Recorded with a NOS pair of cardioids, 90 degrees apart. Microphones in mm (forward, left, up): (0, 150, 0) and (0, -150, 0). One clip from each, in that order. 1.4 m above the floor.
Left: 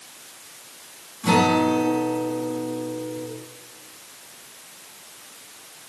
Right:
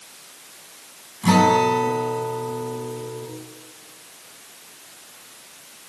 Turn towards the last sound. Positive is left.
turn(degrees=-50)